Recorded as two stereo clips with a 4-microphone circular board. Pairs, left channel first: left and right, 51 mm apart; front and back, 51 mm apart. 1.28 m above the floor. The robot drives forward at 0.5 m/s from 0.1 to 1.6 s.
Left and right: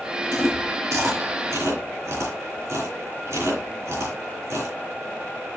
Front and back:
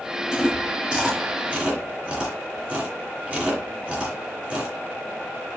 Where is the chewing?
105° right, 3 m; by 4.8 s 115° right, 3.5 m.